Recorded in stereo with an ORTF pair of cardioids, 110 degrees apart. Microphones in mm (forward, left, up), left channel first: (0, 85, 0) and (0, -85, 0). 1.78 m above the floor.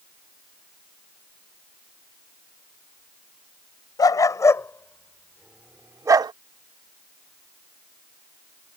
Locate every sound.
4.0 s a dog barking: 25° left; by 6.3 s 35° right